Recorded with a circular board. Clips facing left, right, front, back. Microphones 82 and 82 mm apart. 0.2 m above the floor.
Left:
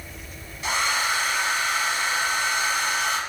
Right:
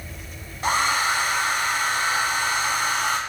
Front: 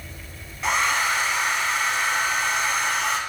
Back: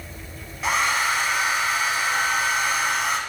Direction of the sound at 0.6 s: 95° right.